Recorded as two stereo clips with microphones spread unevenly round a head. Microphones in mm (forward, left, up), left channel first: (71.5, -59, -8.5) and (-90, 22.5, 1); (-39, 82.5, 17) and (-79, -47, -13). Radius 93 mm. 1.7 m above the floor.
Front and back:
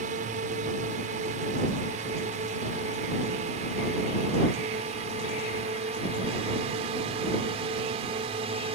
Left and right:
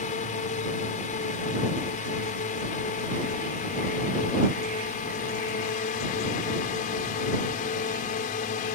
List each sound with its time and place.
0.0 s a drone: 100° left; by 8.8 s 90° left